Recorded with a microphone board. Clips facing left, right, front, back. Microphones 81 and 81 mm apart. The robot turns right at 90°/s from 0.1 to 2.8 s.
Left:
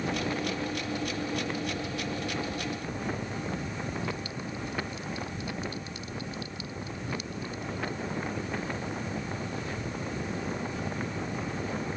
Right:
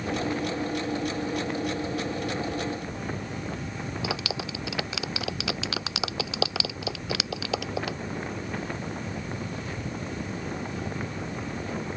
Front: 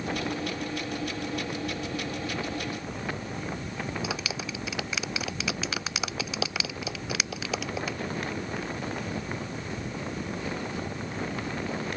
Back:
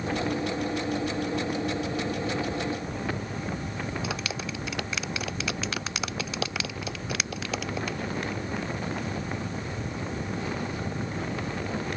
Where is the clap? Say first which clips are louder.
Right 4 dB, back 1 dB; 90° right.